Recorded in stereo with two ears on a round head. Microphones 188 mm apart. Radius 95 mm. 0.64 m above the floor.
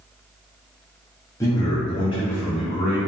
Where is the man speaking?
15° left (ahead or behind), 0.6 m; by 3.0 s 25° left (ahead or behind), 1.2 m.